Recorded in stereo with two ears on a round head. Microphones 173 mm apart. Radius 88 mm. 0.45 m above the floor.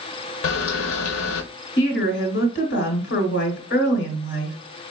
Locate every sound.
0.4 s a camera shutter: 75° left (ahead or behind), 0.7 m
1.8 s a woman speaking: 65° left (ahead or behind), 1.6 m